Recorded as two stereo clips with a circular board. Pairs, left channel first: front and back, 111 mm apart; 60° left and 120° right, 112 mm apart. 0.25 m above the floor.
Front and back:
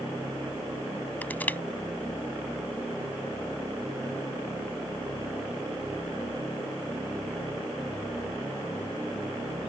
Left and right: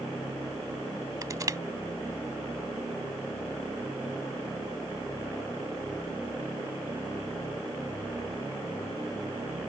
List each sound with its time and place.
1.2 s crushing: 70° right